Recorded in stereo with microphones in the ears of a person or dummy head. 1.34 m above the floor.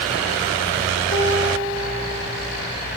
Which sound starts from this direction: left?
A piano, at 1.1 s.